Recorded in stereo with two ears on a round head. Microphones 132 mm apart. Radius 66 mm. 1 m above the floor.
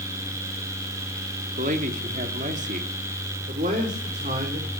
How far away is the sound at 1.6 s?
About 2.5 m.